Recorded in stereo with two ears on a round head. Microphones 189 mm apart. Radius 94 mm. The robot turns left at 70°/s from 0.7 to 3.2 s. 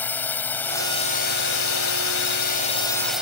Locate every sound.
0.0 s a drone: 170° left; by 3.2 s 5° right